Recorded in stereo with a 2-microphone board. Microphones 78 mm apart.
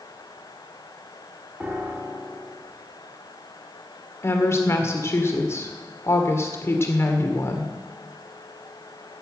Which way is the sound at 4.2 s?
35° left (ahead or behind).